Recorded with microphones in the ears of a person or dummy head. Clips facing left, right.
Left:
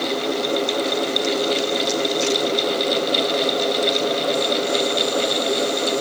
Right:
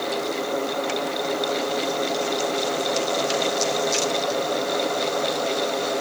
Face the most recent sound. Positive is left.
No sound to turn to.